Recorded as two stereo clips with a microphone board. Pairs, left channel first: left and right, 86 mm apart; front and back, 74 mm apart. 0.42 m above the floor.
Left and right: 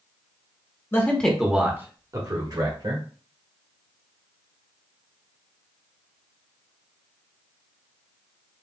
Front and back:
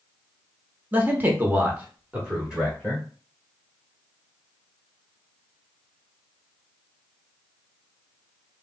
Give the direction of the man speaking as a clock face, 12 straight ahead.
8 o'clock.